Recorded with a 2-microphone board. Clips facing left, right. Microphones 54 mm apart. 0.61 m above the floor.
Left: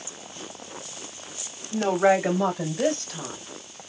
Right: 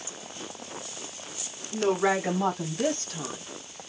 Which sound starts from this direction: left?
A woman speaking, at 1.7 s.